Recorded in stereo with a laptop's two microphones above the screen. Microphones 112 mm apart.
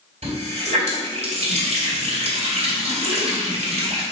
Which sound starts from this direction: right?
A running tap, at 0.2 s.